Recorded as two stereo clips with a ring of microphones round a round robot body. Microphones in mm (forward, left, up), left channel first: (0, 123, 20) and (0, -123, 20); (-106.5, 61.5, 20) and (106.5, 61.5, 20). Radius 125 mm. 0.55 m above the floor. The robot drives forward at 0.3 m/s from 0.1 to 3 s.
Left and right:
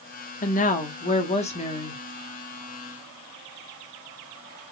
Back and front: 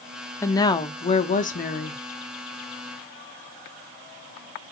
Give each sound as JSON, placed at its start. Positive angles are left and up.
{"t": 0.4, "sound": "a woman speaking", "azimuth_deg": 110, "distance_m": 0.7}